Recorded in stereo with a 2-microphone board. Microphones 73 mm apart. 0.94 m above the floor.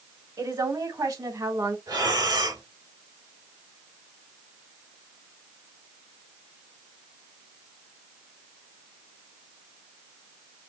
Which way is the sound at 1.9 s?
70° right (ahead or behind).